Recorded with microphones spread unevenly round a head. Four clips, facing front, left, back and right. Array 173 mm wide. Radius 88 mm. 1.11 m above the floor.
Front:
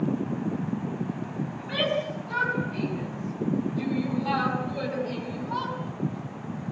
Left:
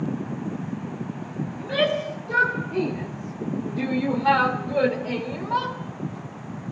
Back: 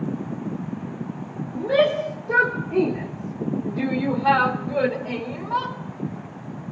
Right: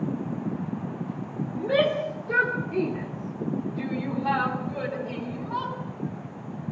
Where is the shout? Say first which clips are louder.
Right 1 dB, back 10 dB; 150° right, 3.5 m; by 5.7 s 115° left, 5.5 m.